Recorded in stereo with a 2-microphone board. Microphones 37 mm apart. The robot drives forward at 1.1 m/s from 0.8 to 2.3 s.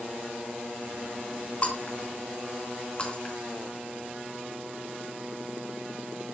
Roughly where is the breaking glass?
Left.